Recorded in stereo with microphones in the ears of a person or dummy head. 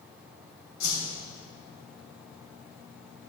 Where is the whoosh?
70° left (ahead or behind), 2.5 m.